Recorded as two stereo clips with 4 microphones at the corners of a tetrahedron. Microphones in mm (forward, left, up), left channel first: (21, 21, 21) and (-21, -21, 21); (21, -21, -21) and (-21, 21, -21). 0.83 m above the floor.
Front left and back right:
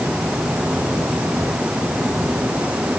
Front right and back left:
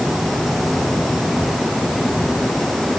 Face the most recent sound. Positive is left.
No sound to turn to.